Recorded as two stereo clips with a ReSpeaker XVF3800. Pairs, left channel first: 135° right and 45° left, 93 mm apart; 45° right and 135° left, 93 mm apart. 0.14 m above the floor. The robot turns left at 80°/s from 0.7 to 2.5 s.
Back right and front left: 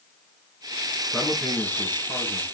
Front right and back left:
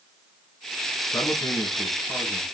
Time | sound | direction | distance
1.1 | a man speaking | 40° right | 1.9 m